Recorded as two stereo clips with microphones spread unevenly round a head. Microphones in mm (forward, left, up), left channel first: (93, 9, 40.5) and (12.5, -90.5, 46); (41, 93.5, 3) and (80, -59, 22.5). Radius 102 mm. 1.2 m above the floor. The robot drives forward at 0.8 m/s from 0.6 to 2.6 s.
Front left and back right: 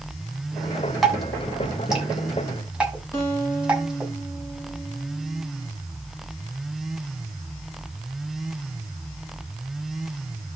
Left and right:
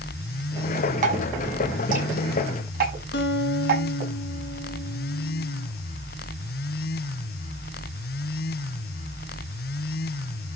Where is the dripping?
40° right, 6.5 m; by 4.1 s 50° right, 5.5 m.